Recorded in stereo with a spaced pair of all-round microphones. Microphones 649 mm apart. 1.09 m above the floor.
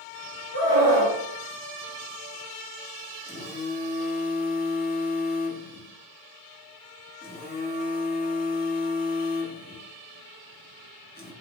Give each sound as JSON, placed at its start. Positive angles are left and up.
{"t": 0.5, "sound": "a scream", "side_deg": 30, "distance_m": 1.7}
{"t": 3.2, "sound": "a phone buzzing", "side_deg": 15, "distance_m": 0.6}